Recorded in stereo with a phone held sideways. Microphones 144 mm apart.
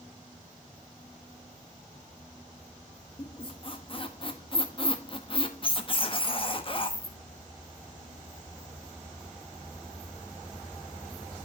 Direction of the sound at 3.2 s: 40° left (ahead or behind).